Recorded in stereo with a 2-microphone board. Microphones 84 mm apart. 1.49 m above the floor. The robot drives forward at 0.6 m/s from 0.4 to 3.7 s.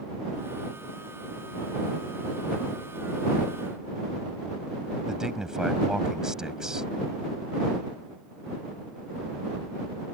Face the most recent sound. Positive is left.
turn(degrees=-5)  # may be behind; listen again after turning